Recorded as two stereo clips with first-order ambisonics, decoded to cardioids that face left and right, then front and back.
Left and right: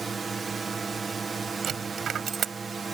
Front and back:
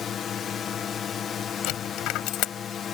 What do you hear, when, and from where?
0.0 s a drone: 30° right
1.6 s a dropped coin: 30° right